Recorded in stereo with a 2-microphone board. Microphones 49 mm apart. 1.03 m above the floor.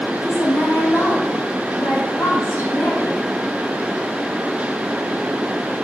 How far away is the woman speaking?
About 2.5 m.